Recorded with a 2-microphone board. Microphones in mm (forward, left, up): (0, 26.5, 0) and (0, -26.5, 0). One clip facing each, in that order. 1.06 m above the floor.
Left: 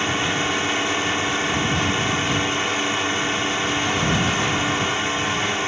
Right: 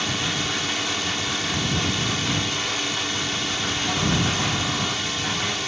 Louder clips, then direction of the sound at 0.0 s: Left 4 dB; 30° left (ahead or behind).